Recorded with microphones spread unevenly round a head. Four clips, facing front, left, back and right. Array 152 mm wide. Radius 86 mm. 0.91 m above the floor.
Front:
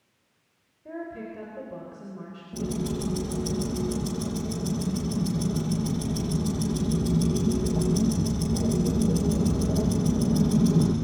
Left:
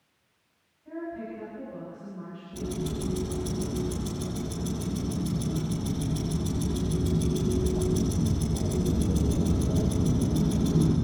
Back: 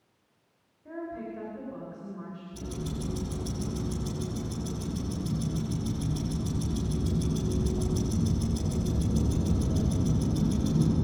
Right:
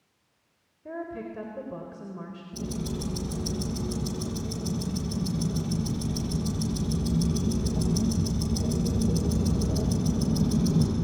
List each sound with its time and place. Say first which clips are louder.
0.8 s a woman speaking: even, front 1 dB; 70° right, 4 m
2.5 s ticking: left 1 dB, front 8 dB; 5° right, 7.5 m